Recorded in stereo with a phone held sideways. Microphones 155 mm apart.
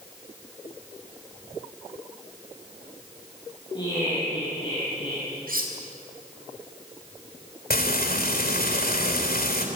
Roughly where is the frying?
Left.